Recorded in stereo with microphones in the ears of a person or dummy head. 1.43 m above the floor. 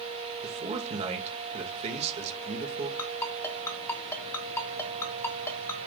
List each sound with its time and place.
0.4 s a man speaking: 40° right (ahead or behind), 1.8 m
3.0 s a ringtone: 15° left (ahead or behind), 1.4 m